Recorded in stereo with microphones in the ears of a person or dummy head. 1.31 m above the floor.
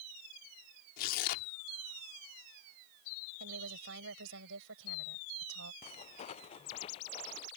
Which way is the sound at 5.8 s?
35° left (ahead or behind).